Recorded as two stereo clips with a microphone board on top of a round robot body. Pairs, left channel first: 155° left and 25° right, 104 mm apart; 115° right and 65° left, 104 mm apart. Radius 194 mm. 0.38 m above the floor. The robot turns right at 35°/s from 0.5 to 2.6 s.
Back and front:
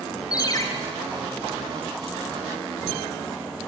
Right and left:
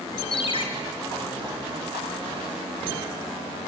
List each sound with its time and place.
0.3 s a ringtone: 150° right, 2.5 m; by 0.7 s 145° right, 2.5 m